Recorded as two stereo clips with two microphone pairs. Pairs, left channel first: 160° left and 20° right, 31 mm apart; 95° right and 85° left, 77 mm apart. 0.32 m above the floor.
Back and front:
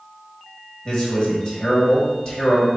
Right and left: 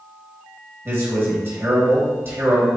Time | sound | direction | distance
0.8 | a man speaking | 115° left | 1.6 m